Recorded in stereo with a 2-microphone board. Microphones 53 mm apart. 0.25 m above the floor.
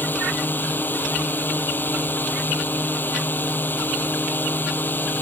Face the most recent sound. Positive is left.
turn(degrees=35)  # may be behind; listen again after turning